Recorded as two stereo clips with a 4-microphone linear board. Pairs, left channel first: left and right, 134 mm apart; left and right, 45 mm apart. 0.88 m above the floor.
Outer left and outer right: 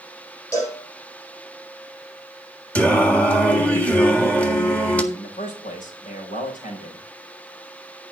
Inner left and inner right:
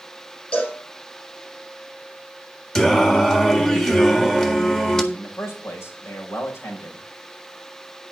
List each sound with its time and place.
0.5 s a cowbell: 25° left (ahead or behind), 9 m
2.8 s singing: 10° left (ahead or behind), 1.6 m
5.1 s a man speaking: 75° left (ahead or behind), 5 m